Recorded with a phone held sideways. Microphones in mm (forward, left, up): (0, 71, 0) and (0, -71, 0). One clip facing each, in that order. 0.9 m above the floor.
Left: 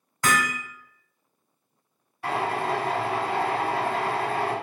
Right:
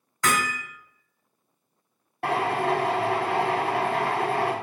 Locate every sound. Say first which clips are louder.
0.2 s hammering: left 1 dB; 15° left (ahead or behind), 1.3 m
2.2 s a drill: right 2 dB; 65° right (ahead or behind), 0.7 m